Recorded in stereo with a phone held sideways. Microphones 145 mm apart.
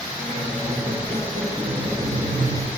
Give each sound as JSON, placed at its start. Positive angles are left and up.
{"t": 0.2, "sound": "a squeak", "side_deg": -75, "distance_m": 6.5}